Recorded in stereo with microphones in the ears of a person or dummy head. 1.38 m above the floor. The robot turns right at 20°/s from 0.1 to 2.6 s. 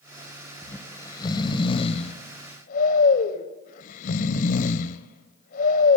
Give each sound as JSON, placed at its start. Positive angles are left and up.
{"t": 0.6, "sound": "snoring", "side_deg": 10, "distance_m": 0.8}